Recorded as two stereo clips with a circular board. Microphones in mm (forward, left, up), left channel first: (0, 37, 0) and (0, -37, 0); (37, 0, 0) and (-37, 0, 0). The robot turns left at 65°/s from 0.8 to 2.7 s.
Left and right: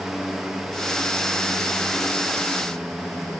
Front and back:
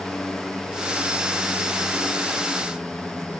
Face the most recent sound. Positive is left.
No sound to turn to.